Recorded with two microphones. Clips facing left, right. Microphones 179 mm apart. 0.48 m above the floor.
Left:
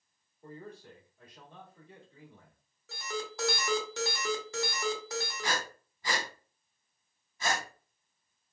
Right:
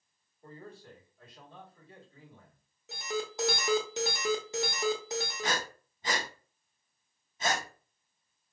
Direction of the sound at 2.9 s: 20° right (ahead or behind).